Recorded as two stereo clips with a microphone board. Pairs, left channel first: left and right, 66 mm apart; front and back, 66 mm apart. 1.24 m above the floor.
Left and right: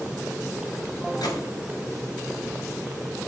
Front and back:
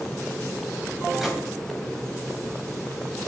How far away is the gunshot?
About 4.5 m.